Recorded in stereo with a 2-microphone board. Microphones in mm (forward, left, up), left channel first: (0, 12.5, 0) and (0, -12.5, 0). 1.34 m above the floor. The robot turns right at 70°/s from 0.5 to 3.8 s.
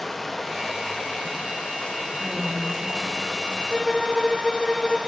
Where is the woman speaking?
175° left, 5.5 m; by 3.6 s 85° right, 5.5 m.